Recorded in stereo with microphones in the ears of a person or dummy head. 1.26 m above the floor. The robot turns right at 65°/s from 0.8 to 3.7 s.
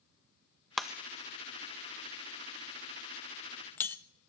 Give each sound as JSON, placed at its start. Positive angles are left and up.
{"t": 0.8, "sound": "breaking glass", "side_deg": -5, "distance_m": 0.6}